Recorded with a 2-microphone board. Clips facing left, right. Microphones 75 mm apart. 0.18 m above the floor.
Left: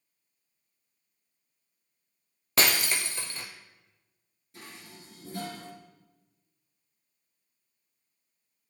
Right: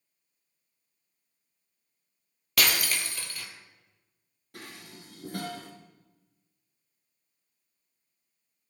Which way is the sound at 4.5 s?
65° right (ahead or behind).